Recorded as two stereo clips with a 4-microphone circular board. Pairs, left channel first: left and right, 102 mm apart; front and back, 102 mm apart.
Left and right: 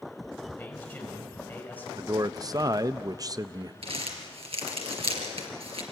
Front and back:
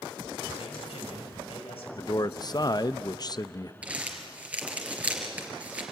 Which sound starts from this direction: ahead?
A man speaking, at 0.6 s.